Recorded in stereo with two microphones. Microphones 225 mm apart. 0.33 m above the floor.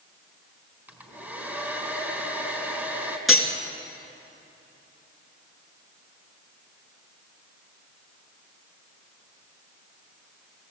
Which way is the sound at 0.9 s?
10° right (ahead or behind).